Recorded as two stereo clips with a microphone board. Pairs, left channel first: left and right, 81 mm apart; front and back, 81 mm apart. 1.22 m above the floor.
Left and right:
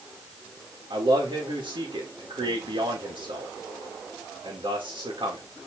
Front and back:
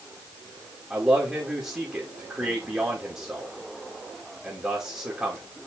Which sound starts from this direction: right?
A man speaking, at 0.9 s.